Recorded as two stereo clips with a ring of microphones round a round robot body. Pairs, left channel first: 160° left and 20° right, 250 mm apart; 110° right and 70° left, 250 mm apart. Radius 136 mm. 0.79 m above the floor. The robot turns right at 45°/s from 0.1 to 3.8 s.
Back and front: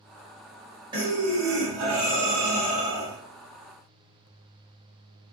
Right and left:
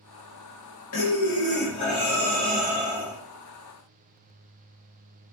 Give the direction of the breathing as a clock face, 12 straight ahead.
3 o'clock.